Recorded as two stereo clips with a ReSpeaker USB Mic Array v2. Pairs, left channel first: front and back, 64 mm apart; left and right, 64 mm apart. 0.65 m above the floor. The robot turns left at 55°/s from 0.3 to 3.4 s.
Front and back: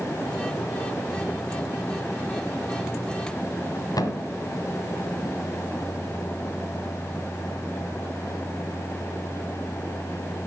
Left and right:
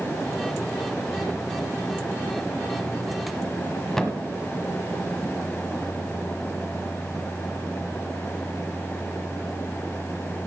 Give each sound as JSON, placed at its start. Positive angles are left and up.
{"t": 4.0, "sound": "a thud", "azimuth_deg": 10, "distance_m": 1.4}